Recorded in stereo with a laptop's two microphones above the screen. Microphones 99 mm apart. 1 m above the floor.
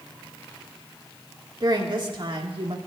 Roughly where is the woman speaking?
Right.